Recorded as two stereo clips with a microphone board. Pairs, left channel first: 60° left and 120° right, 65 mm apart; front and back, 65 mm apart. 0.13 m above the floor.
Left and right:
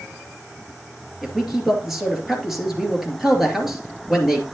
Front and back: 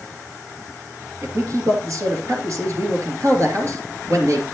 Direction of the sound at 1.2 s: 155° left.